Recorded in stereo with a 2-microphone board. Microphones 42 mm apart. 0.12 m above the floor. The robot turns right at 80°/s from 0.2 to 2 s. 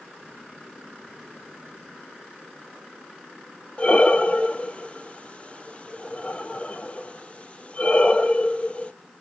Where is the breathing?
30° left (ahead or behind), 0.6 m.